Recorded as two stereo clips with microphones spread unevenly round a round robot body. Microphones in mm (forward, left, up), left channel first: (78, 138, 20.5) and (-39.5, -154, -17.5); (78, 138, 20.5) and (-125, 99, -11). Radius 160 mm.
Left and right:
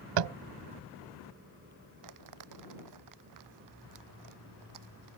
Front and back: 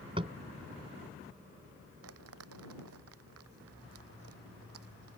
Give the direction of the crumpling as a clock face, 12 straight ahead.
5 o'clock.